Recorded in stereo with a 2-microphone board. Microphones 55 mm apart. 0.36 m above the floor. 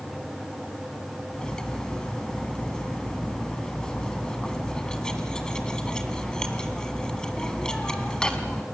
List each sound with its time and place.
1.3 s cutlery clinking: 15° left (ahead or behind), 2 m